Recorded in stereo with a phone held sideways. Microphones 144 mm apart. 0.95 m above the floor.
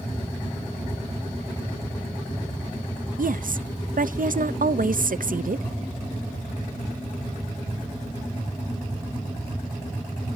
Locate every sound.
3.2 s a woman speaking: 70° right (ahead or behind), 0.5 m